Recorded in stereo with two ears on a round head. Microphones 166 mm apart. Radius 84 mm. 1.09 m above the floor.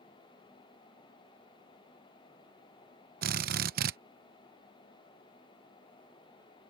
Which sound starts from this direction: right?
A drill, at 3.2 s.